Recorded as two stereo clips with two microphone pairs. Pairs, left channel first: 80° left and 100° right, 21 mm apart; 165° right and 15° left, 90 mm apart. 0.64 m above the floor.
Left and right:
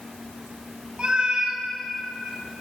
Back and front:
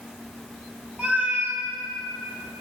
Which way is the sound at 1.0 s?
60° right.